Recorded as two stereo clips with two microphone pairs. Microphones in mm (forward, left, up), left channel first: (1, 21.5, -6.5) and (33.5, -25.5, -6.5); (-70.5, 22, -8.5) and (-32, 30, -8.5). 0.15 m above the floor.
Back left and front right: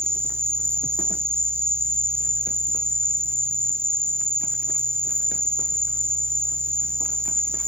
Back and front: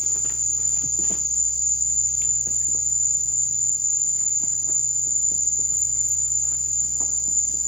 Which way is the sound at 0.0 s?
85° right.